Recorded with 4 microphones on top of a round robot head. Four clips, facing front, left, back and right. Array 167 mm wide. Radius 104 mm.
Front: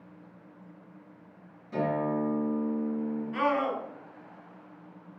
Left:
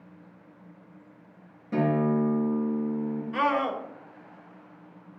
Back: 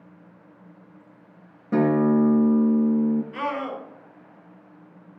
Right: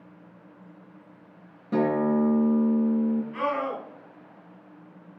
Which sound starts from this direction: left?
A scream, at 3.3 s.